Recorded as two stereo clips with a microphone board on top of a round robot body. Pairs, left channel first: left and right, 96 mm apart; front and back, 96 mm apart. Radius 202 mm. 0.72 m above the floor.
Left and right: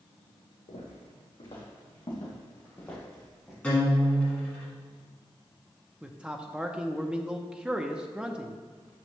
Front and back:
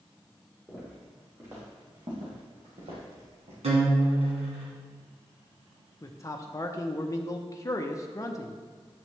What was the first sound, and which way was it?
Footsteps, 100° left.